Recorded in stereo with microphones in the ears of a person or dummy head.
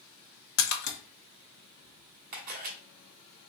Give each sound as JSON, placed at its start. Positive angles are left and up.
{"t": 0.6, "sound": "a splash", "side_deg": 55, "distance_m": 0.8}
{"t": 2.3, "sound": "a camera shutter", "side_deg": -50, "distance_m": 1.0}